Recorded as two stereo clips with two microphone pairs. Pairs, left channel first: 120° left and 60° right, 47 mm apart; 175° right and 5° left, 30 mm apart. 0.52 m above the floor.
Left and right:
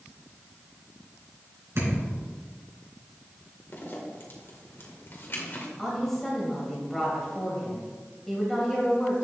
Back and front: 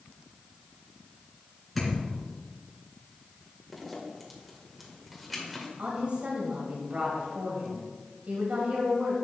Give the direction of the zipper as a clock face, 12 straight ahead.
9 o'clock.